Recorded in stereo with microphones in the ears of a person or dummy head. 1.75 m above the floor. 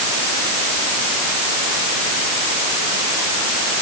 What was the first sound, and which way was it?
Only background noise.